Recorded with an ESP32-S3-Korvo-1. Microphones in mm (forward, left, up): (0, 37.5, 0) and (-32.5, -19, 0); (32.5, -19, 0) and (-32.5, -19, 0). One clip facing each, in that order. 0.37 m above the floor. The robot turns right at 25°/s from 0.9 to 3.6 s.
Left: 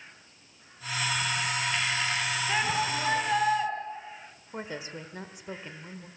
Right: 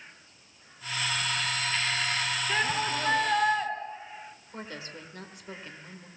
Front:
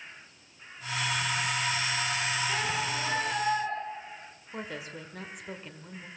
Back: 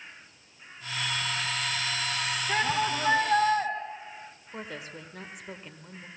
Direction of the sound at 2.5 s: 130° left.